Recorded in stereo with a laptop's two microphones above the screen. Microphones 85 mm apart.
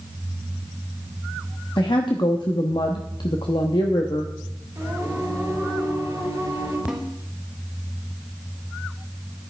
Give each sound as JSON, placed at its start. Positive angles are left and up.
{"t": 1.8, "sound": "a woman speaking", "side_deg": 65, "distance_m": 1.0}
{"t": 4.8, "sound": "singing", "side_deg": -30, "distance_m": 4.5}
{"t": 6.9, "sound": "a snare drum", "side_deg": -10, "distance_m": 1.5}